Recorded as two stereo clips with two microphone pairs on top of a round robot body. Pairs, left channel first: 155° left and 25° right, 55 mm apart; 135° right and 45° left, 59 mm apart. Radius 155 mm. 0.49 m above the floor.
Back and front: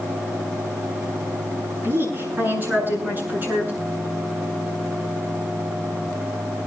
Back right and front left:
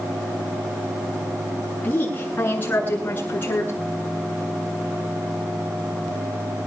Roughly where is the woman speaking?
Right.